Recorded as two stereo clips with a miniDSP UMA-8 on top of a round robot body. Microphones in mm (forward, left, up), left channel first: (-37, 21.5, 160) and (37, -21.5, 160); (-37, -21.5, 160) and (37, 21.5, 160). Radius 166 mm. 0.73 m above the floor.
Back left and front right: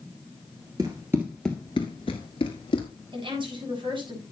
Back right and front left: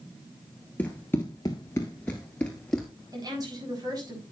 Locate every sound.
0.8 s running footsteps: 75° right, 0.8 m; by 2.9 s 130° left, 1.0 m
3.1 s a woman speaking: 10° right, 6.5 m